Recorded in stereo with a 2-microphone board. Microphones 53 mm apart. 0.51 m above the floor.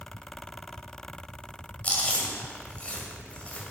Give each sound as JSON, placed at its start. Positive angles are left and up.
{"t": 1.8, "sound": "chewing", "side_deg": 25, "distance_m": 2.5}